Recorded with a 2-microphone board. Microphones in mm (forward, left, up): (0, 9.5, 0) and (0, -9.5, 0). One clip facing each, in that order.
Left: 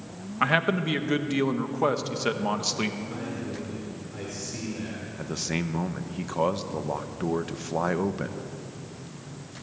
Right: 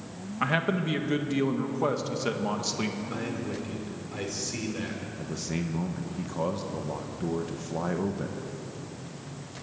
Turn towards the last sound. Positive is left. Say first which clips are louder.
# left 4 dB
turn(degrees=30)  # may be behind; listen again after turning